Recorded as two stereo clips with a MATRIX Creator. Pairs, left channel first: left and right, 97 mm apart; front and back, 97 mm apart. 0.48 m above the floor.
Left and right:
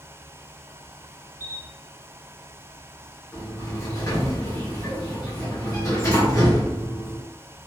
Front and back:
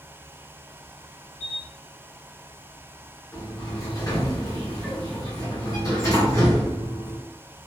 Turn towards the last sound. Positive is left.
turn(degrees=50)